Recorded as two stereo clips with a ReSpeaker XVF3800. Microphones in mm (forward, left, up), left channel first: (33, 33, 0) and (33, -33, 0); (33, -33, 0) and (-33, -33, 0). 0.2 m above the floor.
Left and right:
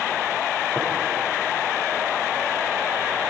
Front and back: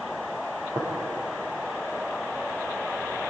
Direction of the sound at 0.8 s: 160° right.